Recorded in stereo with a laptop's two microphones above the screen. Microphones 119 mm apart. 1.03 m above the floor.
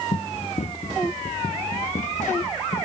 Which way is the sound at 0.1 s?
60° left (ahead or behind).